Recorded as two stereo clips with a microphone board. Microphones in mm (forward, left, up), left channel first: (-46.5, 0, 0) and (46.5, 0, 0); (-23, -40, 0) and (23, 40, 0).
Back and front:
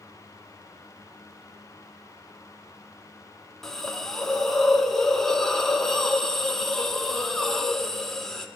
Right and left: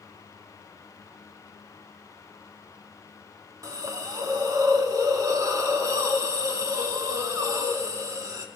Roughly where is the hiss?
Left.